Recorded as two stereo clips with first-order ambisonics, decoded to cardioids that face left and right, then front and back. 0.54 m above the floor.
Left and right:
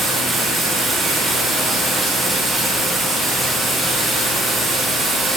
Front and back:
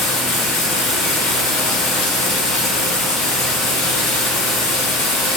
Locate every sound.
0.0 s running water: 5° right, 6.5 m